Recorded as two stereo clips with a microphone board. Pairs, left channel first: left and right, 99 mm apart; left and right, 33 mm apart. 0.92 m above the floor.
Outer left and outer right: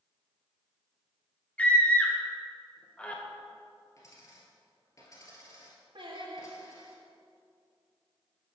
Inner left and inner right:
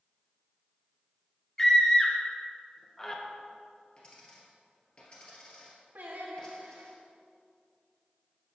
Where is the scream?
15° left (ahead or behind), 0.7 m.